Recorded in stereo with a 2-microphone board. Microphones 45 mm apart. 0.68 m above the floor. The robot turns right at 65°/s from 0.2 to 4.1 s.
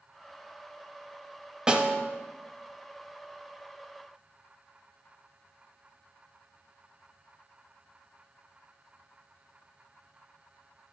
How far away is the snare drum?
About 0.8 m.